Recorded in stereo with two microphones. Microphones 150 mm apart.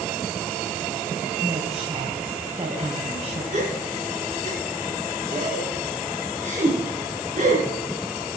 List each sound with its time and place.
1.4 s a woman speaking: 45° right (ahead or behind), 2 m
3.5 s a gasp: 50° right (ahead or behind), 3.5 m